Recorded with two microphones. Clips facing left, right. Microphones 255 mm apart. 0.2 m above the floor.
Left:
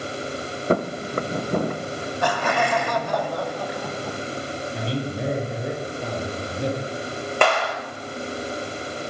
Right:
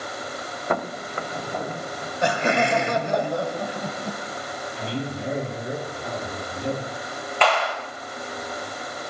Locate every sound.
0.7 s footsteps: 35° left (ahead or behind), 1.1 m; by 2.1 s 60° left (ahead or behind), 1.8 m
2.2 s laughter: 25° right (ahead or behind), 1.1 m
4.7 s a man speaking: 65° left (ahead or behind), 7 m
7.4 s a clap: 50° left (ahead or behind), 3 m